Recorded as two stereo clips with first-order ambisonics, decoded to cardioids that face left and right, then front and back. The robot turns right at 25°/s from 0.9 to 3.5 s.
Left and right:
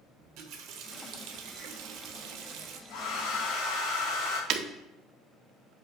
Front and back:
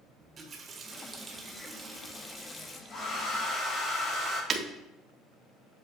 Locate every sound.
0.2 s a running tap: 120° right, 1.1 m; by 2.8 s 70° right, 1.1 m
2.9 s a hair dryer: 55° left, 3.5 m; by 4.4 s 70° left, 3.5 m
4.5 s breaking glass: 120° right, 1.1 m